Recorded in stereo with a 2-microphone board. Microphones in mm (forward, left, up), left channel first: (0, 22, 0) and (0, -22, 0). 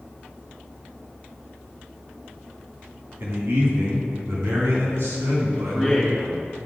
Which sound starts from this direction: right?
A man speaking, at 3.2 s.